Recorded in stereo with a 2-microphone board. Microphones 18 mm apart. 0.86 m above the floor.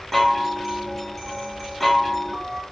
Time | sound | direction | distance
0.1 | a chime | 5° left (ahead or behind) | 0.8 m